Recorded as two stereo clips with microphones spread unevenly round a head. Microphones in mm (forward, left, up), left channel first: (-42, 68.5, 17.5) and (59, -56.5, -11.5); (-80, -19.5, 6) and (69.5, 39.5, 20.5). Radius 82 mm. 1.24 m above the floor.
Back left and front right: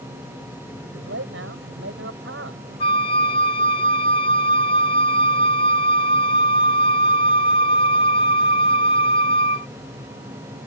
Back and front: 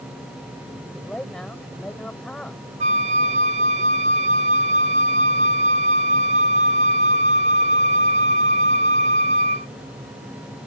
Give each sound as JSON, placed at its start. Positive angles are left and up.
{"t": 0.9, "sound": "a man speaking", "azimuth_deg": -75}
{"t": 2.8, "sound": "a flute", "azimuth_deg": 70}